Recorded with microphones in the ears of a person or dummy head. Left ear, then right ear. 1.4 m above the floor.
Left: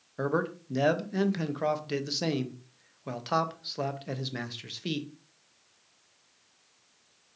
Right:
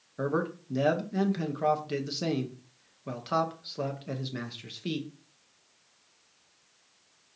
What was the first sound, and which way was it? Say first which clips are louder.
A man speaking: left 1 dB; 20° left (ahead or behind).